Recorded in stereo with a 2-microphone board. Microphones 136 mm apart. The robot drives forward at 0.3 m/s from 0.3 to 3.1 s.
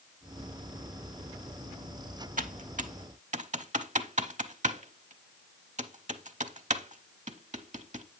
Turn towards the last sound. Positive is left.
turn(degrees=-65)  # may be behind; listen again after turning